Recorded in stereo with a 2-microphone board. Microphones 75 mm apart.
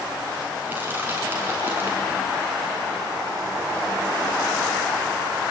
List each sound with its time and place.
0.7 s crushing: 25° right (ahead or behind), 4 m